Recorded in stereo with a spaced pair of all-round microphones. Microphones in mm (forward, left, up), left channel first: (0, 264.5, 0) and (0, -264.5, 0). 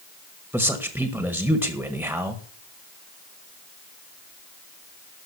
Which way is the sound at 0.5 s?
5° right (ahead or behind).